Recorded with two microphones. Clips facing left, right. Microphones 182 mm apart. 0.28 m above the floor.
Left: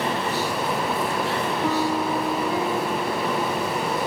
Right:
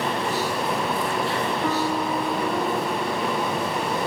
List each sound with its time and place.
1.6 s a piano: 5° left (ahead or behind)